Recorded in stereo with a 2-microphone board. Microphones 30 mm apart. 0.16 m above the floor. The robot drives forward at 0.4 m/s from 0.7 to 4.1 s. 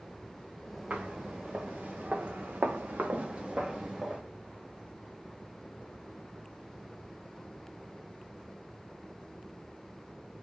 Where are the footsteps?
45° right (ahead or behind), 1.9 m; by 4.2 s 15° right (ahead or behind), 1.4 m.